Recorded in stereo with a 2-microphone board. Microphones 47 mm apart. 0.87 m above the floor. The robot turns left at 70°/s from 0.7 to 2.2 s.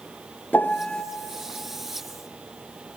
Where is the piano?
45° left (ahead or behind), 0.7 m; by 1.0 s 20° left (ahead or behind), 0.7 m.